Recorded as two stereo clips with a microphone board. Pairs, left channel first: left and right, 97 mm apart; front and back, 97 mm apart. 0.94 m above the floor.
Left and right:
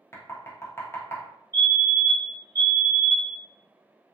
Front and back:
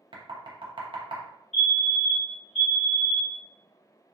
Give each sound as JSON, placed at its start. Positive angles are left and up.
{"t": 0.1, "sound": "knocking", "azimuth_deg": 150, "distance_m": 0.6}
{"t": 1.5, "sound": "a fire alarm", "azimuth_deg": 85, "distance_m": 1.5}